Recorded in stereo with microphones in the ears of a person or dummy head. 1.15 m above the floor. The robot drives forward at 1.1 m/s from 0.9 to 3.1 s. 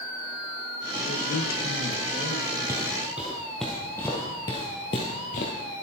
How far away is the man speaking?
About 1.2 m.